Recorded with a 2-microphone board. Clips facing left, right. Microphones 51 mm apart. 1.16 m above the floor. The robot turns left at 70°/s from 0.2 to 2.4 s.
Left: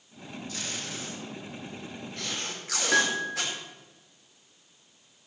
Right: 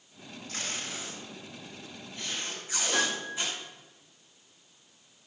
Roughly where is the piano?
Left.